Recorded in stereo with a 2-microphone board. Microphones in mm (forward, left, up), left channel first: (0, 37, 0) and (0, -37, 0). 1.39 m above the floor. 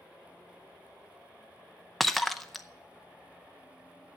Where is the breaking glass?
Centre (ahead or behind), 0.5 m.